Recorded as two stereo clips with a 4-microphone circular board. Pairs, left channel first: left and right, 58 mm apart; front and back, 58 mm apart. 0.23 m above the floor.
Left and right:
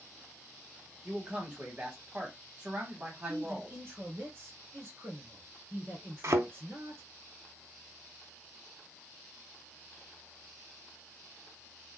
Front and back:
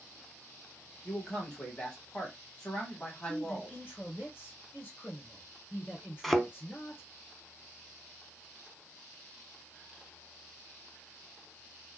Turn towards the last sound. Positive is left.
turn(degrees=-85)